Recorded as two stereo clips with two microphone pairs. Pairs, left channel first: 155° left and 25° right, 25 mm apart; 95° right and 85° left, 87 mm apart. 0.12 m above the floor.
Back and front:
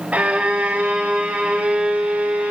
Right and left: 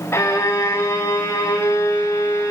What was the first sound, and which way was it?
A violin, 40° right.